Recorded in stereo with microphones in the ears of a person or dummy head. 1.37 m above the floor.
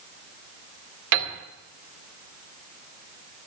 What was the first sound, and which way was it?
A piano, 65° right (ahead or behind).